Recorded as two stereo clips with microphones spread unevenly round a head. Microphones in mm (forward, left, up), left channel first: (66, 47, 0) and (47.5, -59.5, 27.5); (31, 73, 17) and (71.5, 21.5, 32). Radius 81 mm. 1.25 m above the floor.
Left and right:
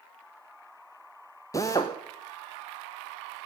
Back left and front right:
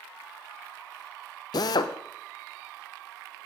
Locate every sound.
1.5 s a drill: 145° left, 0.8 m